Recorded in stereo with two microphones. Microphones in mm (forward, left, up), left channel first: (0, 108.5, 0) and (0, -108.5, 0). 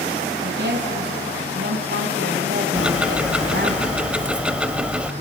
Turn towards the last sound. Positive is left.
turn(degrees=-5)  # may be behind; listen again after turning